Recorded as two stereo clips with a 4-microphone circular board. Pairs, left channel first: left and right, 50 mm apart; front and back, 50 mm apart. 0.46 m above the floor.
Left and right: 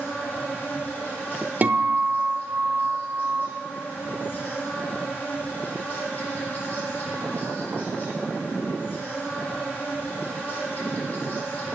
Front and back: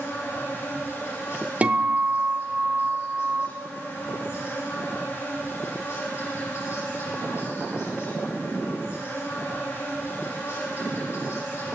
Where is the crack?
I don't hear a crack.